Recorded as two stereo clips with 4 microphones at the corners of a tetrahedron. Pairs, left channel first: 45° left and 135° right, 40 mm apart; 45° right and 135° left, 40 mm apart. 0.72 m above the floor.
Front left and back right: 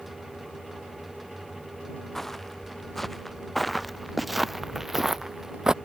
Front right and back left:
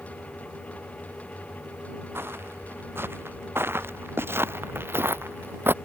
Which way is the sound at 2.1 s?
125° left.